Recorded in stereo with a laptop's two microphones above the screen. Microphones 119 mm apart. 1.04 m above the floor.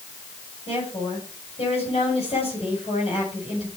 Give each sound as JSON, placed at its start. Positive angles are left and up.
{"t": 0.7, "sound": "a woman speaking", "side_deg": 60, "distance_m": 8.0}